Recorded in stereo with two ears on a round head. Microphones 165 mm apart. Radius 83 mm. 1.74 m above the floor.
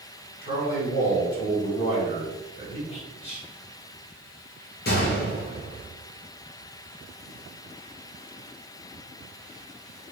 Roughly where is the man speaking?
Left.